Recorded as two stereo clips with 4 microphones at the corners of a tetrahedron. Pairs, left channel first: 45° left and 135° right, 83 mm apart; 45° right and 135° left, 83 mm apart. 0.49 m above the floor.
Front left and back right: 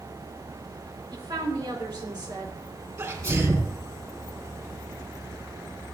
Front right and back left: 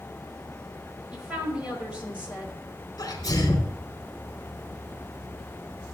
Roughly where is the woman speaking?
Behind right.